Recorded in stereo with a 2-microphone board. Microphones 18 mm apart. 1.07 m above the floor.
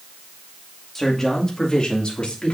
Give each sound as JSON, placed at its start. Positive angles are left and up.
{"t": 0.9, "sound": "a man speaking", "side_deg": 15, "distance_m": 2.0}